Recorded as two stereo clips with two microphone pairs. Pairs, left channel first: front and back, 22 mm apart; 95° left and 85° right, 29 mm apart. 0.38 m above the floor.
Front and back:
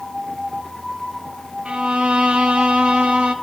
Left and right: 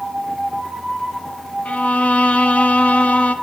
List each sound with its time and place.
1.6 s a violin: 140° left, 1.1 m